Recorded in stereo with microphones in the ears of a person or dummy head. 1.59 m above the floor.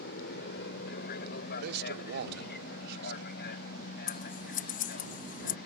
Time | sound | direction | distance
0.0 | an aircraft | 65° left (ahead or behind) | ?
1.6 | a man speaking | 70° right (ahead or behind) | ?
4.1 | scissors | 50° left (ahead or behind) | ?